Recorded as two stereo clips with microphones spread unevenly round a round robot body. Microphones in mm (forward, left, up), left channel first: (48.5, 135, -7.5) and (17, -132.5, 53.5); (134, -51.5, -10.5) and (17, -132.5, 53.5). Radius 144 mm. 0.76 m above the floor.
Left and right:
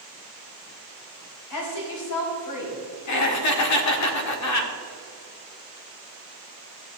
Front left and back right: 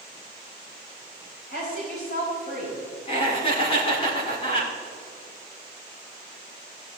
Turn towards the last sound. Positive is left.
turn(degrees=85)